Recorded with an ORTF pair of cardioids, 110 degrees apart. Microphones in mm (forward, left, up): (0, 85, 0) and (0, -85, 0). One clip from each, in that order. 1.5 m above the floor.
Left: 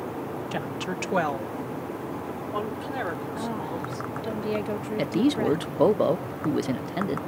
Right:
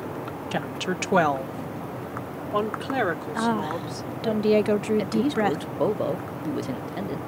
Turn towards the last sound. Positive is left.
turn(degrees=20)